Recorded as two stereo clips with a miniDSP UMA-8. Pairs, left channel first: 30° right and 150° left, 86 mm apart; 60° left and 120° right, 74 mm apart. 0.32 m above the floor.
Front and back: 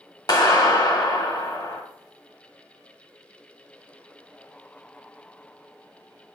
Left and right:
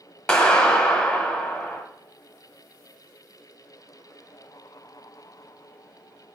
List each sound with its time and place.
0.3 s a clap: 10° right, 1.4 m